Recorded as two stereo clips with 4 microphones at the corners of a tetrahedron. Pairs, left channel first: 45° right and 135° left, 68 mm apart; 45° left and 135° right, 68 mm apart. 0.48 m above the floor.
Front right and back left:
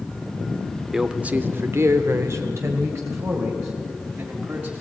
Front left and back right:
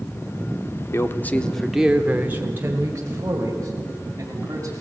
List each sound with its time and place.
0.9 s a man speaking: 55° left, 1.0 m; by 4.8 s 175° right, 4 m